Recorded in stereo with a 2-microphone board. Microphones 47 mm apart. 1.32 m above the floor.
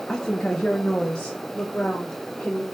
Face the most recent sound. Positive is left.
turn(degrees=15)  # may be behind; listen again after turning